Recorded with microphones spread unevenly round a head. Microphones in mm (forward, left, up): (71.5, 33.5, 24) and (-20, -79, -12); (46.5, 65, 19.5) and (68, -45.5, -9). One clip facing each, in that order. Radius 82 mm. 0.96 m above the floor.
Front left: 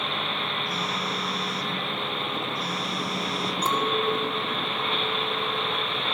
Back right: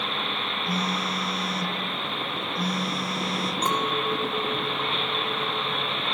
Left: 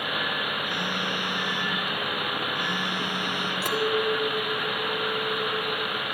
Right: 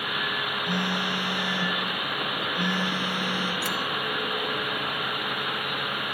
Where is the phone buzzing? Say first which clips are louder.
Back right 2 dB, right 2 dB; 90° right, 7.5 m.